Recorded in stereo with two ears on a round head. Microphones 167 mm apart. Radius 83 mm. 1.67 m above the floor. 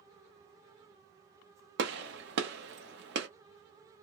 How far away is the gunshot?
About 0.8 m.